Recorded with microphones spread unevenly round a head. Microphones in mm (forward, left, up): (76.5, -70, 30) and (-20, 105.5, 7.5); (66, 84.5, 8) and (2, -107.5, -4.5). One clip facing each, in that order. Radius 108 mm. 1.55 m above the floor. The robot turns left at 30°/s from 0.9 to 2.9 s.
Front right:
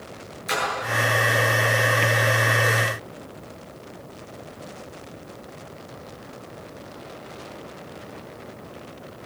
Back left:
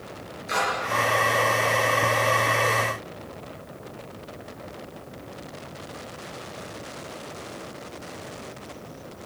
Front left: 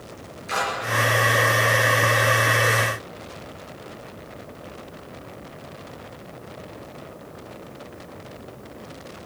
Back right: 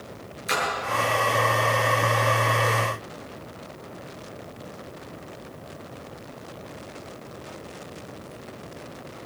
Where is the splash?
90° right, 9.5 m.